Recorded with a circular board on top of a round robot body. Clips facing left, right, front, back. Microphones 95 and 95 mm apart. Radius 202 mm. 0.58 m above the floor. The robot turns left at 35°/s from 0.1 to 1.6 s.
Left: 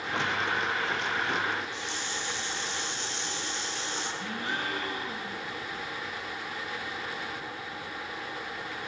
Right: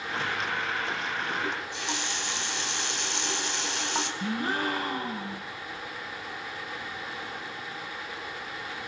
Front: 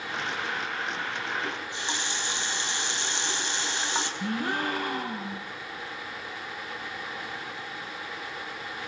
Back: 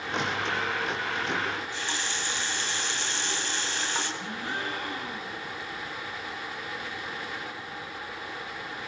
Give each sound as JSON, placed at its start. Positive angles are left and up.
{"t": 1.4, "sound": "a running tap", "azimuth_deg": -65, "distance_m": 3.5}
{"t": 4.2, "sound": "a gasp", "azimuth_deg": -40, "distance_m": 3.0}